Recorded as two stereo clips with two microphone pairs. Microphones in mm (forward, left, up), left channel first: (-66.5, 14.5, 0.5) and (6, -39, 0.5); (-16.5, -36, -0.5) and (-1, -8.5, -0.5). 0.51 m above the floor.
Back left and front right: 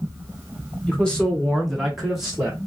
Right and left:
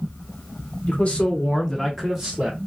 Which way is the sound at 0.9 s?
145° right.